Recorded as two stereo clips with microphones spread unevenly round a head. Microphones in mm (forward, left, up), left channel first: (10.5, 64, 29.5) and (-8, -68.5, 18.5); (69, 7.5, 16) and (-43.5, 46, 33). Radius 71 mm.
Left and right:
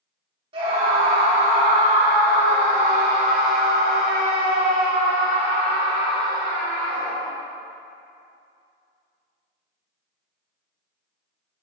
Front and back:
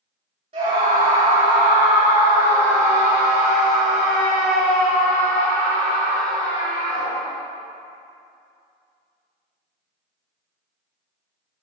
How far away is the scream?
About 3 m.